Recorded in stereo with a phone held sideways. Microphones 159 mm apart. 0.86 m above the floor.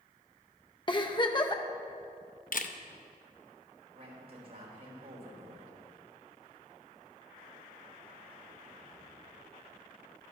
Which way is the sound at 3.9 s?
80° right.